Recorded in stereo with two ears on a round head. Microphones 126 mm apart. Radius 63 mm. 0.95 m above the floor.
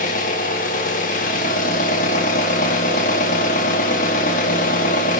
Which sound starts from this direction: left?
An engine running, at 0.0 s.